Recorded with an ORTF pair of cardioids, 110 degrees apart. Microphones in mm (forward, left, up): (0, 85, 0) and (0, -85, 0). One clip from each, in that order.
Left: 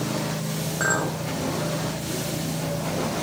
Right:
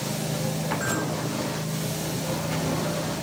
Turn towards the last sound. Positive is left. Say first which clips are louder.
# left 8 dB
turn(degrees=65)